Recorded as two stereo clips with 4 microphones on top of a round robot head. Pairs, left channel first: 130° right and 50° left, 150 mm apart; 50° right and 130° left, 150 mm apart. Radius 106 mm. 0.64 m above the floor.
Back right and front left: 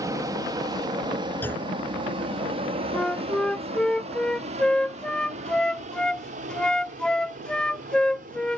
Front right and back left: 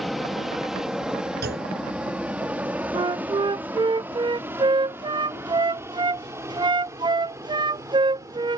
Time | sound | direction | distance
0.0 | an aircraft | 40° left | ?
1.4 | a clunk | 150° left | ?
2.9 | a flute | 150° left | ?